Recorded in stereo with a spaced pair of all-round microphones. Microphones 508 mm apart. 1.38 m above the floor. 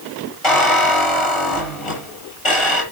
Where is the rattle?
I don't hear a rattle.